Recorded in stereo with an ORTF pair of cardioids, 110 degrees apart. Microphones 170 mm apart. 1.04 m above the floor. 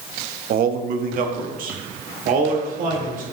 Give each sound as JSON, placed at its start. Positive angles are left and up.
{"t": 0.5, "sound": "a man speaking", "azimuth_deg": -60, "distance_m": 0.9}